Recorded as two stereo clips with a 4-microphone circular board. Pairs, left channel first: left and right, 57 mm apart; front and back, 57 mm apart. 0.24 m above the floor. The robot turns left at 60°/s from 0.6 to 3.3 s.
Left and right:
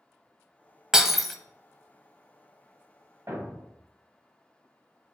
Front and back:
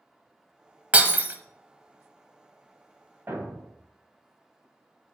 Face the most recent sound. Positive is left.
turn(degrees=-130)